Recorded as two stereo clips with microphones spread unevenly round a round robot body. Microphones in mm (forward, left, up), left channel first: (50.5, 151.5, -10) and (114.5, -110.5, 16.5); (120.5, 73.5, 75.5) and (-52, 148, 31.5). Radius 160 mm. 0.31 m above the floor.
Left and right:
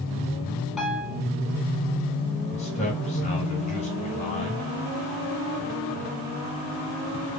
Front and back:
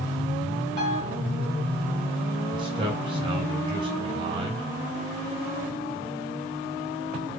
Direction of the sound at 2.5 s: 150° left.